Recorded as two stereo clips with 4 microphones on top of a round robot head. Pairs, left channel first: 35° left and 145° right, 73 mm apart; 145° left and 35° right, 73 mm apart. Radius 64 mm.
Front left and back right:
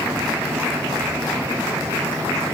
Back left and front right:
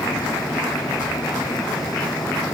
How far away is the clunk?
No clunk in this recording.